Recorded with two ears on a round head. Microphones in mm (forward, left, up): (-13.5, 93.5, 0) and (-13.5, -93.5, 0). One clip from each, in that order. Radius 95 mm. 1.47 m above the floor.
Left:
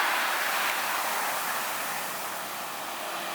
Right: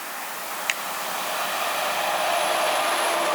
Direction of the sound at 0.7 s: 60° right (ahead or behind).